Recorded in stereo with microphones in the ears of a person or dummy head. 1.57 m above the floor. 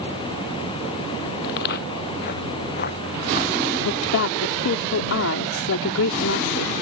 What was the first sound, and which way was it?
Footsteps, 60° left (ahead or behind).